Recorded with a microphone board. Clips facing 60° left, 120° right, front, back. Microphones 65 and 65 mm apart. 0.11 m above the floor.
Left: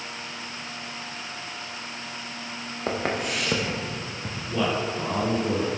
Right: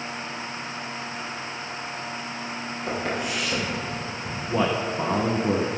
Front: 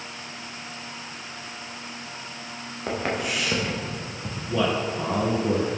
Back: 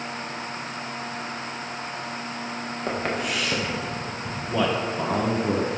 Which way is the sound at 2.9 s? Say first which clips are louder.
Left 1 dB, front 1 dB; 95° left.